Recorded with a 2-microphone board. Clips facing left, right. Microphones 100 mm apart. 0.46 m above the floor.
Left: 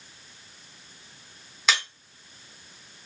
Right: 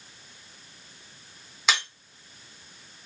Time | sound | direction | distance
1.7 | breaking glass | centre (ahead or behind) | 3 m